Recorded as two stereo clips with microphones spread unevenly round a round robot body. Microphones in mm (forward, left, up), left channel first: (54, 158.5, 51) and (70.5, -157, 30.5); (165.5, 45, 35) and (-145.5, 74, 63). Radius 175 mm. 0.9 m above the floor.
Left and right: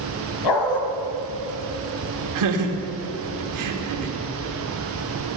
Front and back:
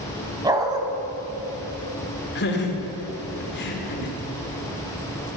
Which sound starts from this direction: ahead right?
Laughter, at 2.4 s.